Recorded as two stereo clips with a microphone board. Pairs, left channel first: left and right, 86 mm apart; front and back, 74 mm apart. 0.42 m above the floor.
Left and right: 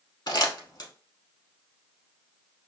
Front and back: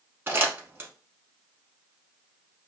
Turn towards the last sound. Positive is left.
turn(degrees=120)